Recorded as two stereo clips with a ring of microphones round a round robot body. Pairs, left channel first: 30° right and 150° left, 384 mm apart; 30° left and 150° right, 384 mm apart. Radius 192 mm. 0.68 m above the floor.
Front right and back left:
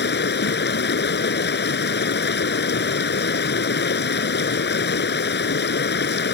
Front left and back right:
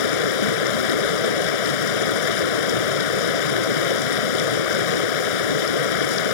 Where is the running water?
35° left.